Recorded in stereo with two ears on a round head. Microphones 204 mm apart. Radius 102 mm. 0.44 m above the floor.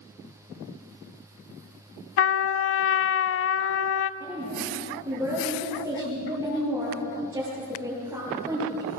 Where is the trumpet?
55° left (ahead or behind), 0.5 m.